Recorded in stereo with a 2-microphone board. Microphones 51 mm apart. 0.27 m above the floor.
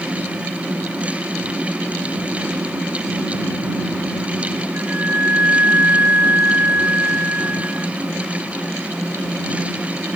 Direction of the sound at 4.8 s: 40° right (ahead or behind).